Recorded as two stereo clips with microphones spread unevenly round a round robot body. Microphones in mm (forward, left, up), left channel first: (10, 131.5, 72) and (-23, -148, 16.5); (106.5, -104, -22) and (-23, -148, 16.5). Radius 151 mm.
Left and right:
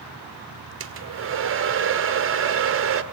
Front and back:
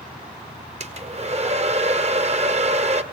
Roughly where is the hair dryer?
Behind right.